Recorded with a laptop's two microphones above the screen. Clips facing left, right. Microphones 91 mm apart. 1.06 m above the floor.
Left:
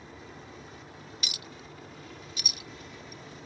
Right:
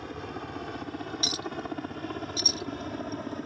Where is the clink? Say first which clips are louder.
Right 12 dB; 35° right (ahead or behind).